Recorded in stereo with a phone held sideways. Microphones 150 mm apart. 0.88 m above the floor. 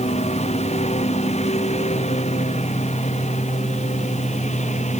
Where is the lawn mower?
45° left (ahead or behind); by 5.0 s 50° left (ahead or behind).